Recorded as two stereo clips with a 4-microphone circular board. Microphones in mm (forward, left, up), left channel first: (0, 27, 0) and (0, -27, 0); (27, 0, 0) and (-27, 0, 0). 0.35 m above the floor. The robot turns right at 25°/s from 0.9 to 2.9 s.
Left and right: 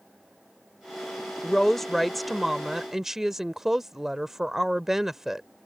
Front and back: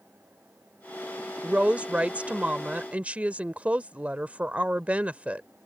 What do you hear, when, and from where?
1.4 s a woman speaking: 155° left; by 5.5 s 170° right